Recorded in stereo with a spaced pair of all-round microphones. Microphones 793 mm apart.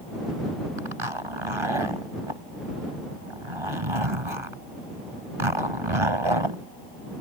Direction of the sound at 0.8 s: 35° right (ahead or behind).